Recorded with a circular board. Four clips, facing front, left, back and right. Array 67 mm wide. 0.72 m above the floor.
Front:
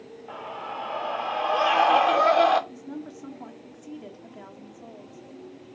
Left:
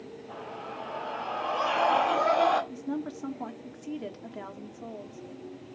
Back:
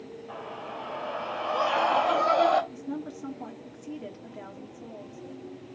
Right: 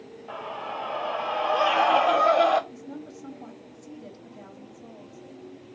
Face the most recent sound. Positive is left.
turn(degrees=90)